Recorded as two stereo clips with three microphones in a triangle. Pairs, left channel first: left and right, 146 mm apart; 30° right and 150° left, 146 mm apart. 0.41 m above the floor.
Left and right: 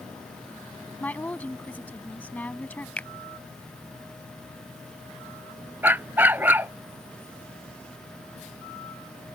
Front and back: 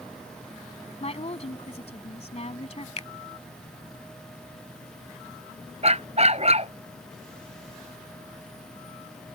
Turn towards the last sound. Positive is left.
turn(degrees=-165)